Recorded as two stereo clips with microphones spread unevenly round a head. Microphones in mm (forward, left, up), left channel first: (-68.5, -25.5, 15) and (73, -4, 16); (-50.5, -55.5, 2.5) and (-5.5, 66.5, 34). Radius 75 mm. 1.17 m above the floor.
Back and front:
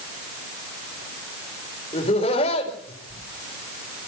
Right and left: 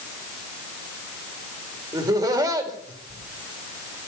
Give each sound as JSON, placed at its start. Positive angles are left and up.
{"t": 1.9, "sound": "laughter", "azimuth_deg": 135, "distance_m": 4.5}